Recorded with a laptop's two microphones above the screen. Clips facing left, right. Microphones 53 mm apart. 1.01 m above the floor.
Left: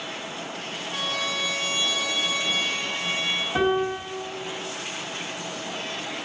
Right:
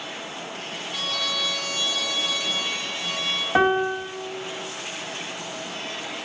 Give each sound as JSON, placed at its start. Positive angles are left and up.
{"t": 0.9, "sound": "a trumpet", "side_deg": 35, "distance_m": 1.2}
{"t": 3.5, "sound": "a piano", "side_deg": -55, "distance_m": 1.1}